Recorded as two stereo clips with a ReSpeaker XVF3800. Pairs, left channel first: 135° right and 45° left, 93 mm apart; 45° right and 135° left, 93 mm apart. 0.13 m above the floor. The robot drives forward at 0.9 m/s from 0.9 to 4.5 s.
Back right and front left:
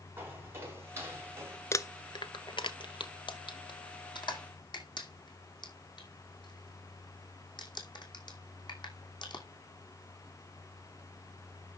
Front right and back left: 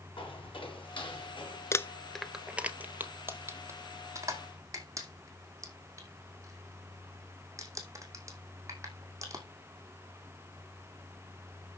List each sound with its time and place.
0.2 s footsteps: 20° right, 6.5 m; by 1.6 s 15° right, 5.5 m
1.7 s crumpling: 90° right, 0.6 m; by 9.4 s 170° right, 2.5 m